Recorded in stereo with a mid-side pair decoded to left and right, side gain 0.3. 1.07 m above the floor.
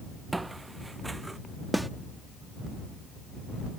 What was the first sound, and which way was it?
Footsteps, 25° right.